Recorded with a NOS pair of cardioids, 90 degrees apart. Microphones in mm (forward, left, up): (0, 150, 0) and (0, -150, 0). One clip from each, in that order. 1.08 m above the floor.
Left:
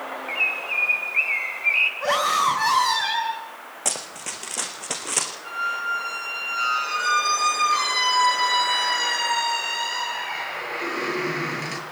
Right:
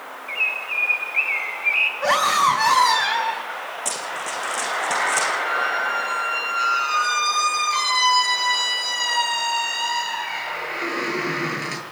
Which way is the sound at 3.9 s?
25° left.